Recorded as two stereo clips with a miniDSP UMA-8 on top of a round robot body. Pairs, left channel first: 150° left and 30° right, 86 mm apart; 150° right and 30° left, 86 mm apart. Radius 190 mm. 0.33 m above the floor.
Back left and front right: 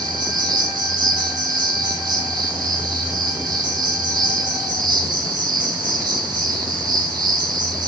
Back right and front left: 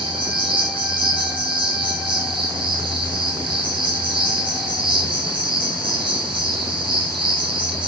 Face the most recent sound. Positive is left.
turn(degrees=10)